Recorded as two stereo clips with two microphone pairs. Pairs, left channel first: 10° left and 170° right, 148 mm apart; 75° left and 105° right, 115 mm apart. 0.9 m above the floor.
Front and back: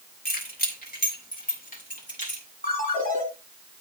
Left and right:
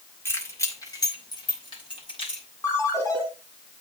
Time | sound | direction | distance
0.2 | keys jangling | 5° left | 2.5 m
2.6 | a ringtone | 10° left | 4 m